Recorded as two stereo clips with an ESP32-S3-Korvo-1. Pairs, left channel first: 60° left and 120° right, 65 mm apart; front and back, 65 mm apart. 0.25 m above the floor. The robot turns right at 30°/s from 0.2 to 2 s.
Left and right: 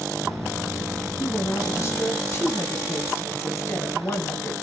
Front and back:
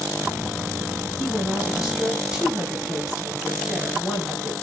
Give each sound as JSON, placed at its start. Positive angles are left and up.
{"t": 1.2, "sound": "a woman speaking", "azimuth_deg": 75, "distance_m": 2.5}